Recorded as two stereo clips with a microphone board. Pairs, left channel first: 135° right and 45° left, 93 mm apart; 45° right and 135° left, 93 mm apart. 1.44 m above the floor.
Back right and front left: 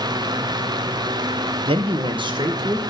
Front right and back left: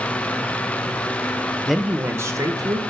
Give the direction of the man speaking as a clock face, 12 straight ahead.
11 o'clock.